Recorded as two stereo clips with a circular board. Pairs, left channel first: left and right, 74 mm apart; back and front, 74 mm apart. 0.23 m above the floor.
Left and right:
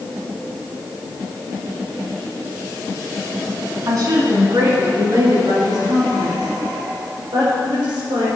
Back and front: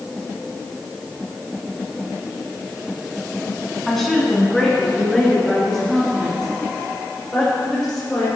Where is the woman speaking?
95° right, 2 m; by 8.3 s 100° right, 6 m.